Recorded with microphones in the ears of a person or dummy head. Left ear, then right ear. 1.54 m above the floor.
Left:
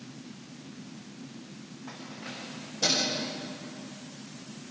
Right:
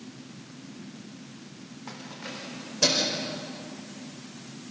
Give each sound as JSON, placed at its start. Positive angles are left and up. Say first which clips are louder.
{"t": 1.9, "sound": "keys jangling", "louder": "right 2 dB", "side_deg": -70, "distance_m": 4.0}